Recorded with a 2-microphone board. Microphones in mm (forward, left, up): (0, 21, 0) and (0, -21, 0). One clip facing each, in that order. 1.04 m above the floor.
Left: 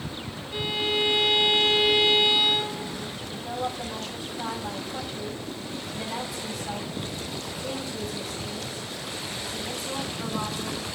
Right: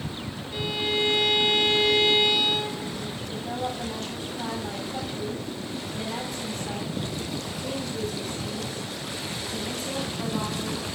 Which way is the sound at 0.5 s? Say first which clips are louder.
Left 1 dB; 15° left (ahead or behind).